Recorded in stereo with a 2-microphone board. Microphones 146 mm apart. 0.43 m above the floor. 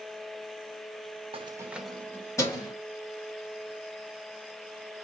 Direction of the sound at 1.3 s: 40° right (ahead or behind).